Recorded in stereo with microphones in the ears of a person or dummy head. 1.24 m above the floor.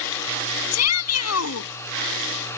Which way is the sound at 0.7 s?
85° left.